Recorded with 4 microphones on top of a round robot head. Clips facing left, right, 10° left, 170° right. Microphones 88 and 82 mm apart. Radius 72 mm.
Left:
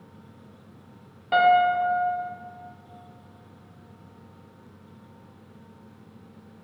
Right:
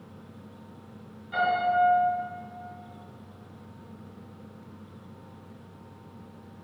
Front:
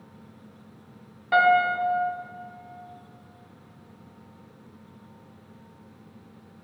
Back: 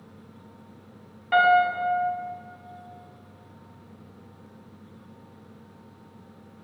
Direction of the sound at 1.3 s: 90° left.